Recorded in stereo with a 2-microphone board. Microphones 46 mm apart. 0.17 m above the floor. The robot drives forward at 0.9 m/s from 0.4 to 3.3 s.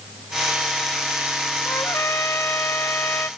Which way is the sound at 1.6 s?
75° left (ahead or behind).